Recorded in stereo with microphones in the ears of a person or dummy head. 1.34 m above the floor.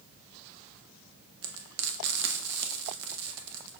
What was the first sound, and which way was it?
Frying, 65° right (ahead or behind).